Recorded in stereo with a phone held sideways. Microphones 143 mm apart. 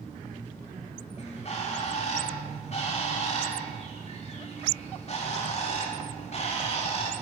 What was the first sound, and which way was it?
A bird, 45° left (ahead or behind).